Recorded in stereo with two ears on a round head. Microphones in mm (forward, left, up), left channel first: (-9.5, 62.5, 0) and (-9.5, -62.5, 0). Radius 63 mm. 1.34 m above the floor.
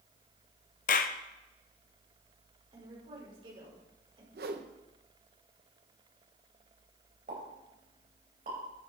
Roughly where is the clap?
Left.